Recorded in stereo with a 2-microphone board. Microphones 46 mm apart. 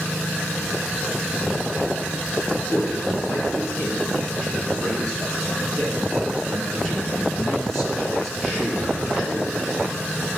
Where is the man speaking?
30° left (ahead or behind), 3 m; by 9.8 s 5° left (ahead or behind), 5.5 m.